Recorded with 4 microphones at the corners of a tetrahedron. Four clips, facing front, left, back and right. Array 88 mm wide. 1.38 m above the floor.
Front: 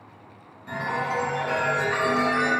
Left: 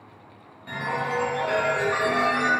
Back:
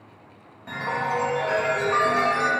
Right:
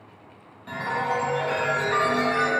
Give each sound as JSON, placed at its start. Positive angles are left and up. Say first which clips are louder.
{"t": 0.7, "sound": "a chime", "louder": "right 1 dB, back 1 dB", "azimuth_deg": -170, "distance_m": 0.9}